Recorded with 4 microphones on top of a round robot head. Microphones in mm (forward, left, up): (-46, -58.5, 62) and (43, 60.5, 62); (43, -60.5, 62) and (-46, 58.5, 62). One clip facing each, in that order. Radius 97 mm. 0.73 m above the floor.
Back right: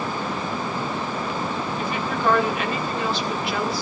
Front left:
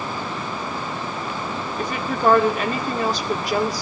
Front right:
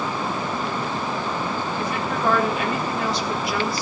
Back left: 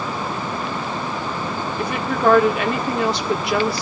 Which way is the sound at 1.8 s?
105° left.